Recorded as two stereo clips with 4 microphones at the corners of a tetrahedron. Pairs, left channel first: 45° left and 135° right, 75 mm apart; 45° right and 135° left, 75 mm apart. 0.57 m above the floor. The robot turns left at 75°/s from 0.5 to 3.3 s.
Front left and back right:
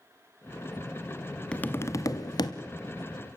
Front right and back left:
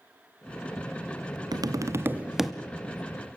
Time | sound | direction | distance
1.5 | tapping | 120° left | 1.0 m